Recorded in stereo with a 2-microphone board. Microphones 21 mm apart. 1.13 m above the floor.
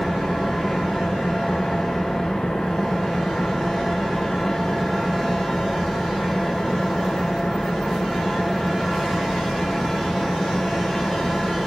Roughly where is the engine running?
Left.